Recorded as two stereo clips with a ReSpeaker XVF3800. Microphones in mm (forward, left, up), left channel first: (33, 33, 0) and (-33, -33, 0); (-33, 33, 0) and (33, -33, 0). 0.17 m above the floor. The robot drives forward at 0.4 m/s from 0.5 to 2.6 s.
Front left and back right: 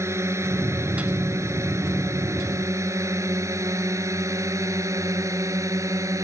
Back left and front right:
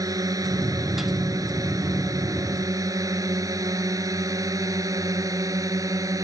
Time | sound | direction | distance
0.0 | a drone | 85° right | ?